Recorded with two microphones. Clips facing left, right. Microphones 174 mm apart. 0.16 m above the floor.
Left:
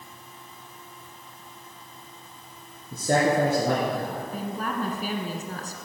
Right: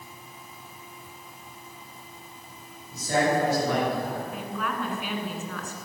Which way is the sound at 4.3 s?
40° left (ahead or behind).